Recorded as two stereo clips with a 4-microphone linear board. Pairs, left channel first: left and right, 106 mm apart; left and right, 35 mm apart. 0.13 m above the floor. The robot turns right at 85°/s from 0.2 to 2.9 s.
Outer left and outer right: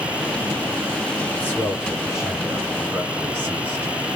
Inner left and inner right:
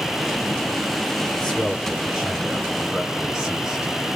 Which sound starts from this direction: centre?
A man speaking, at 1.3 s.